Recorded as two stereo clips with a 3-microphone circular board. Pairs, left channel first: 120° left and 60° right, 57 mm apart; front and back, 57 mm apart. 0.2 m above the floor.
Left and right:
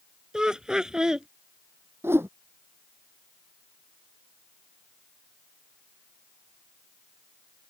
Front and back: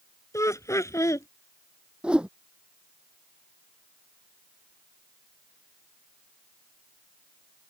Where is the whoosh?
105° right.